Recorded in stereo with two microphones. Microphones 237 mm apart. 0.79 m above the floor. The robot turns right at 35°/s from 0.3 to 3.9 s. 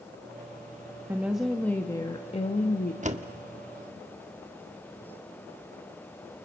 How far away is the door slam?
About 1.2 m.